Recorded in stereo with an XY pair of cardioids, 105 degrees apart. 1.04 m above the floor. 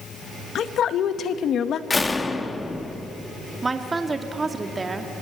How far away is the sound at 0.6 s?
About 1.2 m.